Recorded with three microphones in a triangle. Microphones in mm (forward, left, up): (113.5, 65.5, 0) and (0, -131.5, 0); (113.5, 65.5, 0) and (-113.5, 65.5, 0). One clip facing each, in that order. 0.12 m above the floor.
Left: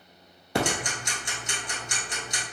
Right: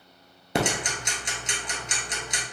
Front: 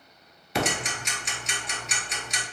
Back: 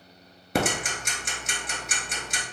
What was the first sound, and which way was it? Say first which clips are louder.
Ticking: right 1 dB, back 2 dB; straight behind.